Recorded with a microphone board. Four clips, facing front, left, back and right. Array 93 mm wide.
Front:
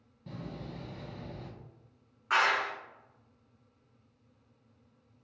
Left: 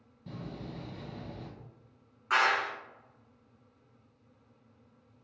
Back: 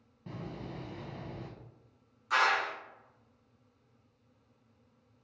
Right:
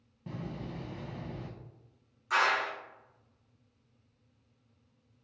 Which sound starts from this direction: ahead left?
A clap, at 2.3 s.